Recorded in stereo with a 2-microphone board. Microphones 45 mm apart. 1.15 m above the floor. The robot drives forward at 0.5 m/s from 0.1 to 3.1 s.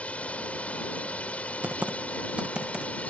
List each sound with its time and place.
0.0 s a drone: 30° left (ahead or behind)
1.6 s typing on a keyboard: 35° right (ahead or behind); by 2.9 s 25° right (ahead or behind)